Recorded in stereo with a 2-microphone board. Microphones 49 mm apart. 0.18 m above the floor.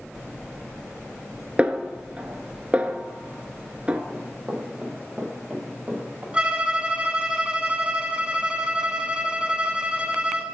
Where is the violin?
25° right (ahead or behind), 0.5 m.